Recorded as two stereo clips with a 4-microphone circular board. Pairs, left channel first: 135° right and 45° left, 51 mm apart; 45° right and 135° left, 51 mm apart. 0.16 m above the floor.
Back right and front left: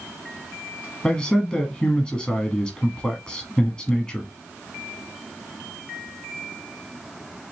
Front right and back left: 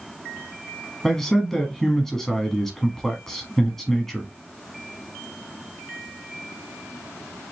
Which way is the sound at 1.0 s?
110° right.